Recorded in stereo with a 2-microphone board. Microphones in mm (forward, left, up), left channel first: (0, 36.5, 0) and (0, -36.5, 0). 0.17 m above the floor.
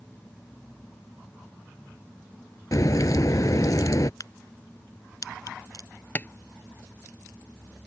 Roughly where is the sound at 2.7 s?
Left.